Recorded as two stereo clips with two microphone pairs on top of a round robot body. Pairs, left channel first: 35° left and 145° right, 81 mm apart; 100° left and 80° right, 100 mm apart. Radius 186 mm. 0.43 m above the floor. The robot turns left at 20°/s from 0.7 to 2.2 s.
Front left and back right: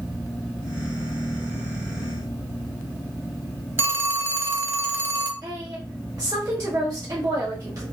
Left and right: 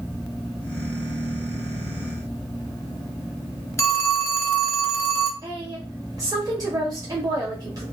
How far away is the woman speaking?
About 1.3 m.